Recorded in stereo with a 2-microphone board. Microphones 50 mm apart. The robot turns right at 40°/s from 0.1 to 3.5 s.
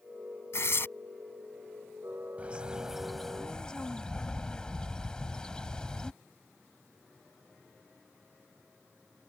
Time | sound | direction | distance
0.5 | tearing paper | 65° left (ahead or behind) | ?
2.4 | a bird | 30° right | ?